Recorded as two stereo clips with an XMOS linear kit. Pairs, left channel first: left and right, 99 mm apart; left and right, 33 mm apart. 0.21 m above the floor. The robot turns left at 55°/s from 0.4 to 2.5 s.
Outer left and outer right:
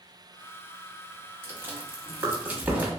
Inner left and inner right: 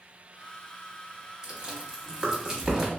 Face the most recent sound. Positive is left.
turn(degrees=-15)  # may be behind; listen again after turning